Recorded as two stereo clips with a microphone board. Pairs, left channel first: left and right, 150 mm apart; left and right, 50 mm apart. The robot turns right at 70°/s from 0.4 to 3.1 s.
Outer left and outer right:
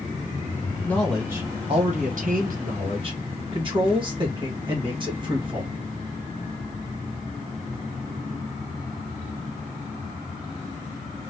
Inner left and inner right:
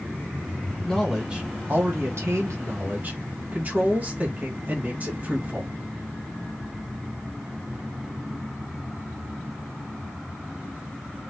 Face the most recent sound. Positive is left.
turn(degrees=-40)